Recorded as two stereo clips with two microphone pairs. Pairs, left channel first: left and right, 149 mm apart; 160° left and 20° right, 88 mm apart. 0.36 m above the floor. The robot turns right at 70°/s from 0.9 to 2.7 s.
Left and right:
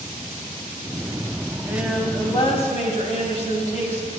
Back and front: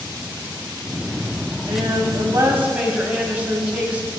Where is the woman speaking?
20° right, 2 m; by 4.1 s 55° left, 2 m.